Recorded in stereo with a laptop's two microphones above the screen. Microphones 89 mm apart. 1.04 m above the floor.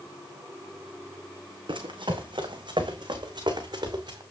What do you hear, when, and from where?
1.7 s running footsteps: 65° right (ahead or behind), 3 m; by 4.2 s 50° right (ahead or behind), 3.5 m